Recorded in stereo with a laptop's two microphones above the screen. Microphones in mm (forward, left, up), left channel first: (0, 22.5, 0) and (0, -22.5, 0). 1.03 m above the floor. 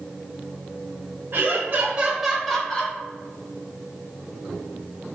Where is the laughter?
45° right (ahead or behind), 0.8 m; by 3.0 s 20° left (ahead or behind), 0.9 m.